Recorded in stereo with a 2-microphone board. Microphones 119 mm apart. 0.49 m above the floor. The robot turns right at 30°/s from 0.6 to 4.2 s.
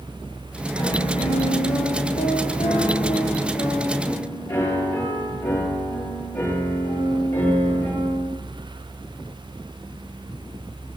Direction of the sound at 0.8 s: 60° left.